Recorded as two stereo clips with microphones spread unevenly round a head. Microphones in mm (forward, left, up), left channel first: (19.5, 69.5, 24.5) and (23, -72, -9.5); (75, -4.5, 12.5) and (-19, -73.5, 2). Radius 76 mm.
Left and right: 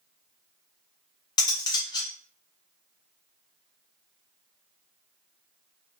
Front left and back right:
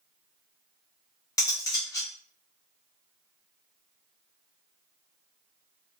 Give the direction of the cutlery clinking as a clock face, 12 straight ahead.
9 o'clock.